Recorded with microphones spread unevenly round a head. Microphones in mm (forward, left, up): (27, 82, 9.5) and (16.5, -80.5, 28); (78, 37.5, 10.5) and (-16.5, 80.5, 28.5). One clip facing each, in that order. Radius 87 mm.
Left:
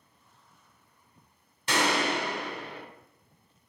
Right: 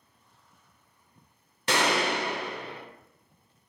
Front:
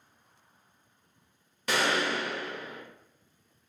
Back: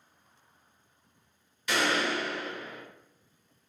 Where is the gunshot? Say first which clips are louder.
Right 1 dB, even; 65° right, 0.6 m.